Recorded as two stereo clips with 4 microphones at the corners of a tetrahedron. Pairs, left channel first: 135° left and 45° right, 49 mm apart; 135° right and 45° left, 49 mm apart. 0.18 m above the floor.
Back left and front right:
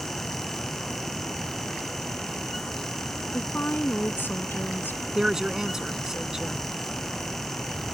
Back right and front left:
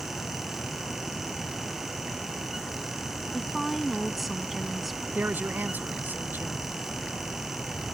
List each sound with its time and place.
3.3 s a woman speaking: 130° left
5.2 s a woman speaking: 30° left